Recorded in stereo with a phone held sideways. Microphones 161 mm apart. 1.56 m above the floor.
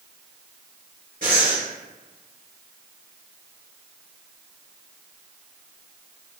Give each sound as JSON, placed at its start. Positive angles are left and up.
{"t": 1.2, "sound": "breathing", "side_deg": -60, "distance_m": 1.4}